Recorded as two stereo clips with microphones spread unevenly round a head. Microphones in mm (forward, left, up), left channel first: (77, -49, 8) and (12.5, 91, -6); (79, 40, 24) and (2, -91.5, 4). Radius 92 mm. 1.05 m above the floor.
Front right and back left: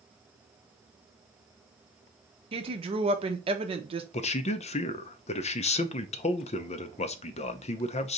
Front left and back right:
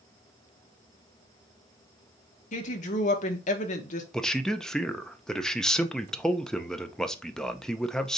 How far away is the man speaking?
About 0.6 m.